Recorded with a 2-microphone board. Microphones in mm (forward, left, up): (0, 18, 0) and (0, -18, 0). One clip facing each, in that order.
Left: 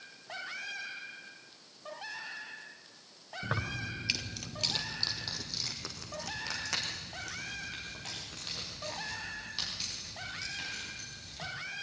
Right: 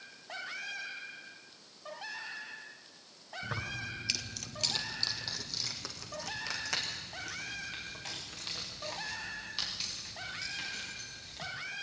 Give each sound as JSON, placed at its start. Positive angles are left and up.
{"t": 3.4, "sound": "keys jangling", "side_deg": 35, "distance_m": 1.0}